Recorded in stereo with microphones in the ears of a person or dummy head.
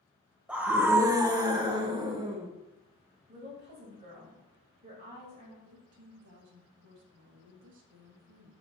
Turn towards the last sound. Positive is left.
turn(degrees=-65)  # may be behind; listen again after turning